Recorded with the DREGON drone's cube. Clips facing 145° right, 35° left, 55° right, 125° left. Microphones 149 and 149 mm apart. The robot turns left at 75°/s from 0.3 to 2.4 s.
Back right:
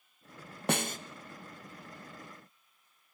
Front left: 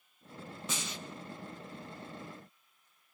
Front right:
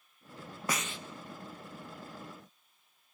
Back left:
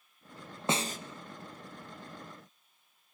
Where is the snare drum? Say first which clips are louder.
Back right 11 dB, back left 5 dB; 170° right, 0.8 m; by 1.0 s 165° left, 0.8 m.